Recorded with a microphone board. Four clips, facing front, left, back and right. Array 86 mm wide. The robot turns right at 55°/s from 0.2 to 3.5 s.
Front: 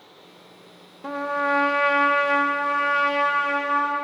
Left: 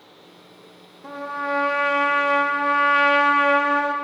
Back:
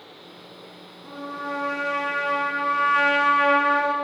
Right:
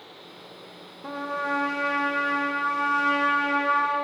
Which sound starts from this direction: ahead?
A trumpet, at 1.0 s.